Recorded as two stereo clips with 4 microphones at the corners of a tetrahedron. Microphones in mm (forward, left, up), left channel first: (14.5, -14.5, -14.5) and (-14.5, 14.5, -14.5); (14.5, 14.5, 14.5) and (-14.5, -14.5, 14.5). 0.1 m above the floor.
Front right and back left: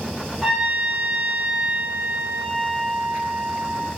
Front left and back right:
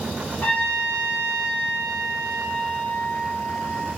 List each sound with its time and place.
0.4 s a trumpet: 70° left, 1.7 m